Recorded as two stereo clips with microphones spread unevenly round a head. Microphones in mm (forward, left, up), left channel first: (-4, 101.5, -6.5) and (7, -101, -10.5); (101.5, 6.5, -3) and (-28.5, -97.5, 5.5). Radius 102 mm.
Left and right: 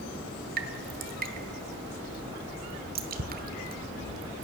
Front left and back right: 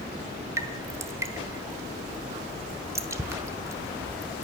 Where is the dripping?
80° right, 1.3 m.